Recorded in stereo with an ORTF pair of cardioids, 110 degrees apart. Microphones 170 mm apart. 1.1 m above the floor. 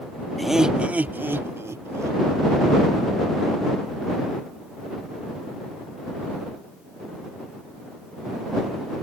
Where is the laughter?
Straight ahead; by 2.2 s 20° right.